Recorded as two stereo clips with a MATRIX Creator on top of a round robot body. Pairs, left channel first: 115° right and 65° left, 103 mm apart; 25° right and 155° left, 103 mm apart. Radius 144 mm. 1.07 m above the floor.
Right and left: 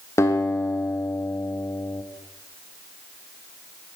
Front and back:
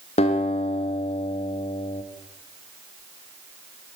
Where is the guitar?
45° right, 0.9 m.